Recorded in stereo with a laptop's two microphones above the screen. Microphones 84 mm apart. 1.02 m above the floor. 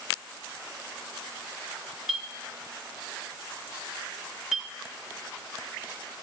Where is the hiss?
No hiss in this recording.